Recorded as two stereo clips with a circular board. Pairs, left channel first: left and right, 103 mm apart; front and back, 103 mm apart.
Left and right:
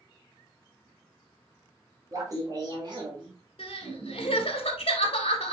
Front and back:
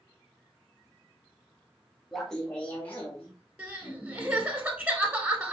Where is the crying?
105° left, 1.5 m.